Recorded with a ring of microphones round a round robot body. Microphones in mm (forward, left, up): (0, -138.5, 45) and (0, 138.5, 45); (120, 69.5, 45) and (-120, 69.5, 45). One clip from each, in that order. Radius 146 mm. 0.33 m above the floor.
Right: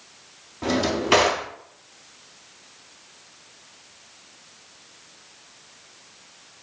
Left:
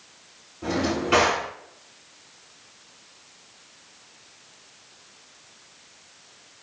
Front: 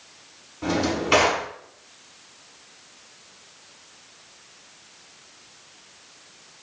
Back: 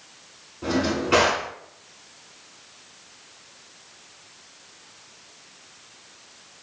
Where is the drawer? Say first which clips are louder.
Right 2 dB, even; 55° right, 0.7 m.